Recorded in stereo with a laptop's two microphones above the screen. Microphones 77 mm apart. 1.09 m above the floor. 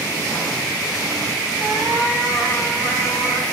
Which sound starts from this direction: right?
A cat meowing, at 1.6 s.